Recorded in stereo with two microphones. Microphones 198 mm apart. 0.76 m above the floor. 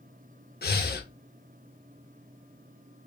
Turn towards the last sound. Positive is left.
turn(degrees=55)  # may be behind; listen again after turning